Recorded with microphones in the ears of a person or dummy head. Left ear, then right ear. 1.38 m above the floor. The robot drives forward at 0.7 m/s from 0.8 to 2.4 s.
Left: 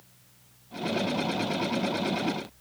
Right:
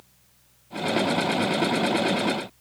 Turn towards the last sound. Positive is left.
No sound to turn to.